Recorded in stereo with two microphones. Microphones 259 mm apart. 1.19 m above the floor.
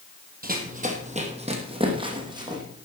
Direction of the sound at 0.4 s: 35° right (ahead or behind).